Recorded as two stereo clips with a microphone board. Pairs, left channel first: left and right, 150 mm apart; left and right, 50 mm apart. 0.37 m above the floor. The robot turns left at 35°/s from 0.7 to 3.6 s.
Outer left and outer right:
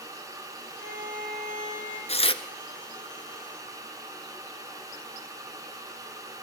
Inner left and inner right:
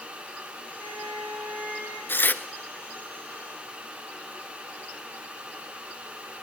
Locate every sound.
0.8 s a violin: 100° right, 9.5 m; by 2.0 s 145° right, 9.5 m
2.1 s tearing paper: 45° left (ahead or behind), 0.9 m; by 2.4 s 35° left (ahead or behind), 0.9 m